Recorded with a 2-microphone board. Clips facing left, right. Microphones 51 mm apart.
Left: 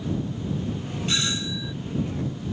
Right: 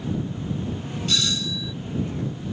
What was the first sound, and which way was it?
A doorbell, 25° left (ahead or behind).